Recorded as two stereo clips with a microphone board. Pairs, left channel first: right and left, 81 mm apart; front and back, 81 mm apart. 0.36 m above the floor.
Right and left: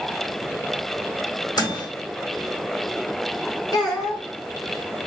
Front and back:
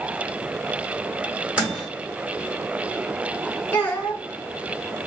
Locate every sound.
1.6 s a microwave: 105° right, 1.9 m
3.7 s a child speaking: 70° right, 1.2 m